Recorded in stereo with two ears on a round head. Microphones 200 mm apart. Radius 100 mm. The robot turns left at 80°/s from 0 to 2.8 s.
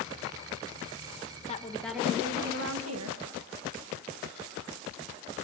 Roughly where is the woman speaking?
Ahead left.